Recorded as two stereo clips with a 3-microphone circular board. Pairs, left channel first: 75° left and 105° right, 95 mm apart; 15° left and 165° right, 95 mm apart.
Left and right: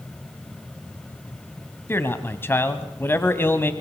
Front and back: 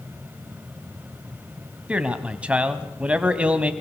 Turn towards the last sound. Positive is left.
turn(degrees=125)